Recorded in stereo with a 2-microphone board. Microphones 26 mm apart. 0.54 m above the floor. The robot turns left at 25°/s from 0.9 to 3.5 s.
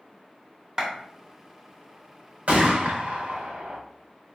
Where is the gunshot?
65° right (ahead or behind), 0.8 m; by 3.8 s 75° right (ahead or behind), 0.8 m.